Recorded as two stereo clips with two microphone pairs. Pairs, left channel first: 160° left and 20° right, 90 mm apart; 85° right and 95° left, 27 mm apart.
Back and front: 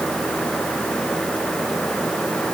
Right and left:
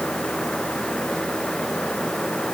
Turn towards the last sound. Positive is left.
No sound to turn to.